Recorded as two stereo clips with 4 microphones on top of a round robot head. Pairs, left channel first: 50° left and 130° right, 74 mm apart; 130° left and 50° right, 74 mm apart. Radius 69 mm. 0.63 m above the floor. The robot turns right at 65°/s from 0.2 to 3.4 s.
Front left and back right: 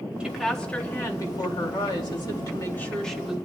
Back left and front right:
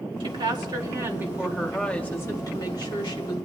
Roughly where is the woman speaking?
Ahead right.